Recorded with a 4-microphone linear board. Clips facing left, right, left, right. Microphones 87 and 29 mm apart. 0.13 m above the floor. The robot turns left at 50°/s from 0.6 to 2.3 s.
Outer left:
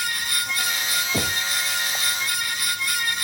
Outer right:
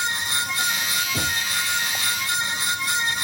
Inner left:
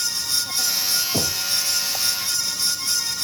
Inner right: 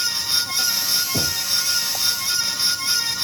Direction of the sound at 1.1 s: 40° left (ahead or behind).